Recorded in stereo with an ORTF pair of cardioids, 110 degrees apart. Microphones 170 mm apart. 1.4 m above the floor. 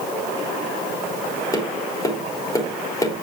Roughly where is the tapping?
Ahead.